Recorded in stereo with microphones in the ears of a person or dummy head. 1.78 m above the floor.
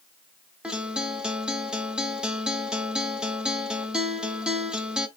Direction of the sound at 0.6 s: 5° right (ahead or behind).